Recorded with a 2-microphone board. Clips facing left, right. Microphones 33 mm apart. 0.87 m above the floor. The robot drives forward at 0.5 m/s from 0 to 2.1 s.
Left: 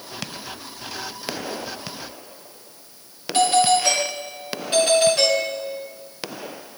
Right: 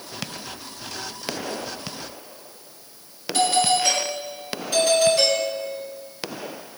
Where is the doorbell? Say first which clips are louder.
Left 3 dB; 40° left (ahead or behind), 7 m.